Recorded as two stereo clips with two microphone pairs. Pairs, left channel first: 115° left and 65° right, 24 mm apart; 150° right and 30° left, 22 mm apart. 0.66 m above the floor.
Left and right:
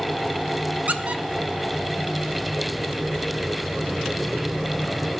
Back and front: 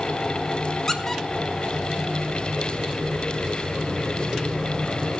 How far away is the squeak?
About 0.8 m.